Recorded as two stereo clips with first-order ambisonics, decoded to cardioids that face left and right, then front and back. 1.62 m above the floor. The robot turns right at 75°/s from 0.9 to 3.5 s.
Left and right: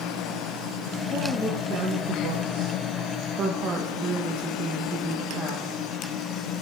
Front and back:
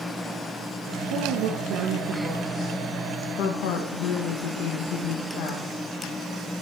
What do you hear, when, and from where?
1.1 s a woman speaking: 160° left, 1.3 m; by 5.9 s 20° right, 1.3 m